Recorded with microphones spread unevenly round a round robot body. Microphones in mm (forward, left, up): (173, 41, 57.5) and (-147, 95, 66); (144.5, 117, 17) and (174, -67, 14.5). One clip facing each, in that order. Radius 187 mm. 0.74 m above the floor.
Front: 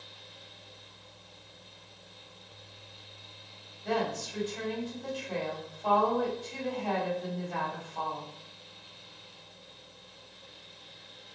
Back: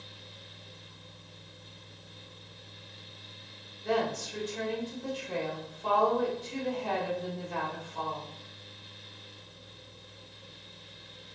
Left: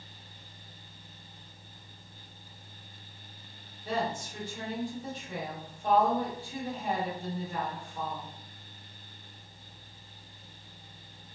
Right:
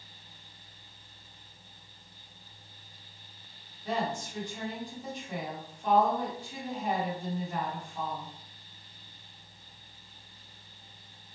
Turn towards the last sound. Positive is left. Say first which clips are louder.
# back 1 dB, even
turn(degrees=-145)